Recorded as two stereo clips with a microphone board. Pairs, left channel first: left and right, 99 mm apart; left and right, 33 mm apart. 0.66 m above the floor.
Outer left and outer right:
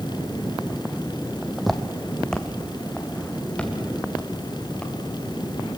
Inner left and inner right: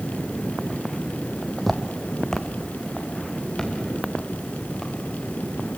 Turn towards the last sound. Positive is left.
turn(degrees=10)  # may be behind; listen again after turning